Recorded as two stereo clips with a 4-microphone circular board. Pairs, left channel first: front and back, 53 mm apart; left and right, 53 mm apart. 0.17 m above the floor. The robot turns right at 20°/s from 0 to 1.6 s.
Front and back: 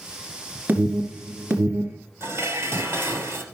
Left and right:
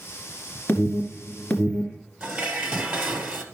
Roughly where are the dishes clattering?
Behind.